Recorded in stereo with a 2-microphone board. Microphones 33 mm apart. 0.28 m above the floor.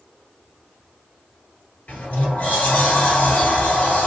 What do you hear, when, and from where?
1.9 s a sliding door: 50° left (ahead or behind), 1.2 m